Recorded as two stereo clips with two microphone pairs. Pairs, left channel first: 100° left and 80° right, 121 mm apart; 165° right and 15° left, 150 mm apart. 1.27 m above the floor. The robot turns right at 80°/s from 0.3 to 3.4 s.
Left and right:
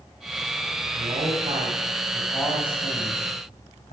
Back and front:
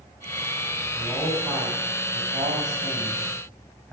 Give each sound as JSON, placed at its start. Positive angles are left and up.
{"t": 1.0, "sound": "a man speaking", "azimuth_deg": -85, "distance_m": 7.0}